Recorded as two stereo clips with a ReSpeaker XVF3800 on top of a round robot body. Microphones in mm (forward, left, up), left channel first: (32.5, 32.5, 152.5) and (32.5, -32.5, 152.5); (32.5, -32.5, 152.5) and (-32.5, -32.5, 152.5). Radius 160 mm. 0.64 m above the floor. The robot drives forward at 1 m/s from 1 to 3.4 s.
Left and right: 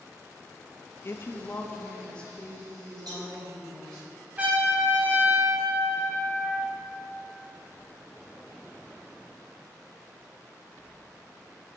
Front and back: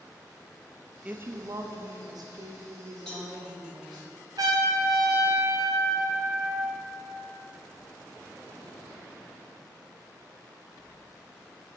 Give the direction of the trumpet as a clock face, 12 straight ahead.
5 o'clock.